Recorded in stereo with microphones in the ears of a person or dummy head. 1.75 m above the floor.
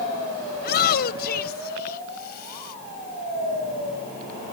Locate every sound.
0.6 s a shout: 60° left (ahead or behind)